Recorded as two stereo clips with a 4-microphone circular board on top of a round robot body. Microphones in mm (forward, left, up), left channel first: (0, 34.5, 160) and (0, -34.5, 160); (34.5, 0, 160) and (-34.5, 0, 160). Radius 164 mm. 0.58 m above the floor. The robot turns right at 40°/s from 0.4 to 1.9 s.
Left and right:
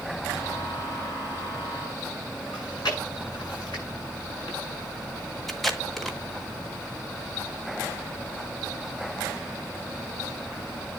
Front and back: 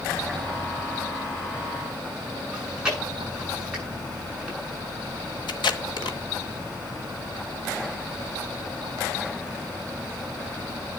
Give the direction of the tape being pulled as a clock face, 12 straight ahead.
12 o'clock.